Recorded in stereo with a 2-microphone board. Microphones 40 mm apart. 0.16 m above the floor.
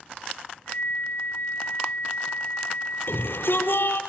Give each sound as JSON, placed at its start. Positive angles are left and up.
{"t": 0.7, "sound": "a flute", "side_deg": 60, "distance_m": 3.0}
{"t": 3.1, "sound": "a shout", "side_deg": 60, "distance_m": 5.0}